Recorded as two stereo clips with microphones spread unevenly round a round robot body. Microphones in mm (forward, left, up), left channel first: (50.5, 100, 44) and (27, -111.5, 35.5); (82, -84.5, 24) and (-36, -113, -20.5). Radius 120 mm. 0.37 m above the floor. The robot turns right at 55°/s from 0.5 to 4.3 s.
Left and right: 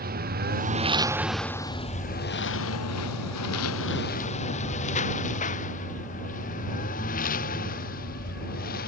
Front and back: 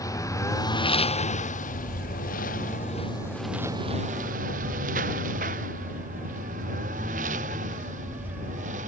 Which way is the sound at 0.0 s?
50° right.